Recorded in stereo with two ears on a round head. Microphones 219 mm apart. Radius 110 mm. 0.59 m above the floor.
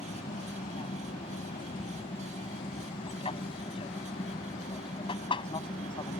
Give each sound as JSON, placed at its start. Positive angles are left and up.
{"t": 0.0, "sound": "an aircraft", "side_deg": 25}